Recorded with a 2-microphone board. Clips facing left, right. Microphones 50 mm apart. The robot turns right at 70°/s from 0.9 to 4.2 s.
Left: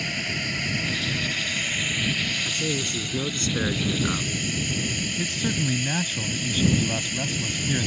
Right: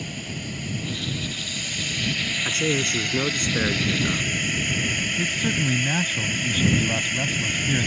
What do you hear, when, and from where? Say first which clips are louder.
0.0 s a drone: left 5 dB; 90° left; by 7.9 s 40° right
2.5 s a man speaking: right 4 dB; 95° right; by 4.3 s 30° left
5.2 s a man speaking: right 1 dB; 10° right (ahead or behind)